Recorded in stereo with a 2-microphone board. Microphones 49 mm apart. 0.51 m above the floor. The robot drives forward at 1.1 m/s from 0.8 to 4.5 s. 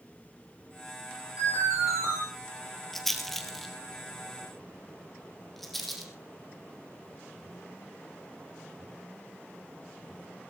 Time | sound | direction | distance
1.4 | an alarm | 85° left | 9 m
2.9 | a rattle | 5° left (ahead or behind) | 1.9 m